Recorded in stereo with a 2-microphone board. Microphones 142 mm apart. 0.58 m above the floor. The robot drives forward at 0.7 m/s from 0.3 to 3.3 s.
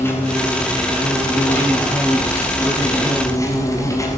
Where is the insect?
15° left (ahead or behind), 7.5 m; by 4.2 s 20° left (ahead or behind), 5.5 m.